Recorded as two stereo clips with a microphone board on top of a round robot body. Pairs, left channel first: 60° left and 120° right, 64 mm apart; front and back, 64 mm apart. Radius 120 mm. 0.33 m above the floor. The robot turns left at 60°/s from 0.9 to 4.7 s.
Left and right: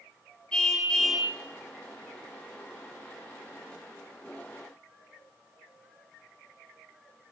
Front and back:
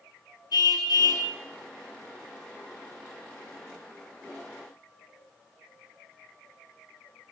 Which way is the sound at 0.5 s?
15° right.